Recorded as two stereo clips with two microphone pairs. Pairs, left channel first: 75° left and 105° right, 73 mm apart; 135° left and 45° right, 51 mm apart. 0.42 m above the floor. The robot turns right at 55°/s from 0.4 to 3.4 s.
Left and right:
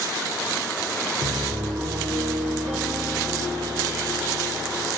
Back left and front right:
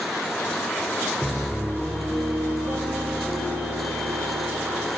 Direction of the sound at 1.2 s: 150° right.